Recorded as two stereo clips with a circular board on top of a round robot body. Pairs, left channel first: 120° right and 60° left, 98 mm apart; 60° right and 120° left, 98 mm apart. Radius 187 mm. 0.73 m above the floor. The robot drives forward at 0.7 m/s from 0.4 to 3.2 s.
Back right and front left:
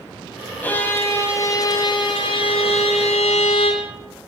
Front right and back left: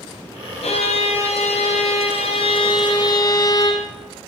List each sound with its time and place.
0.6 s a violin: 45° right, 1.9 m; by 3.8 s 110° right, 1.4 m